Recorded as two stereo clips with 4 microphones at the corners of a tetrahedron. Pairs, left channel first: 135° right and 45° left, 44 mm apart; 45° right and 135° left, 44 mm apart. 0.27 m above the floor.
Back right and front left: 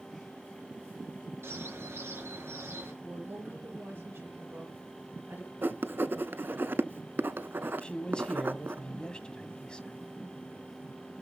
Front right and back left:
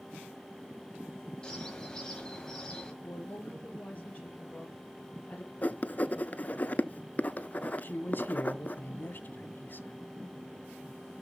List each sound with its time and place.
1.4 s a bird: 25° left, 5 m
3.0 s a woman speaking: 5° left, 4.5 m
5.6 s writing: 5° left, 0.6 m
7.8 s a man speaking: 70° right, 1.8 m